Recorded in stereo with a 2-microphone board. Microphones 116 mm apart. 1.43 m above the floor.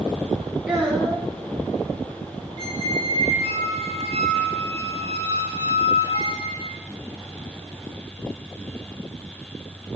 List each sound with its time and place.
0.7 s a child speaking: 10° right (ahead or behind), 1.0 m
2.6 s a squeak: 40° right (ahead or behind), 1.2 m